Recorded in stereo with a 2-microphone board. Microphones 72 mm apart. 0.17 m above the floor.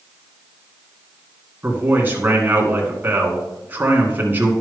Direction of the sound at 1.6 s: 25° right (ahead or behind).